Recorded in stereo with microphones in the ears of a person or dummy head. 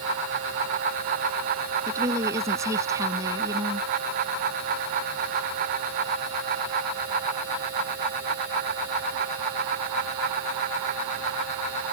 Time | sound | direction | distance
1.9 | a woman speaking | 20° right (ahead or behind) | ?